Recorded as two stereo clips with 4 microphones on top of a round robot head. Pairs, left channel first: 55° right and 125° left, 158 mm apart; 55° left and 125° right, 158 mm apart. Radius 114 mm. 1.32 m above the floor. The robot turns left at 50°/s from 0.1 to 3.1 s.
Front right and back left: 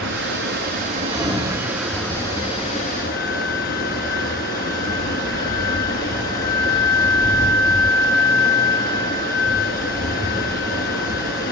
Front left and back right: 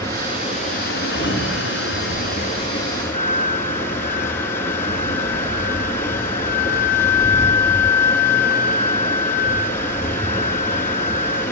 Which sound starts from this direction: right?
A flute, at 3.1 s.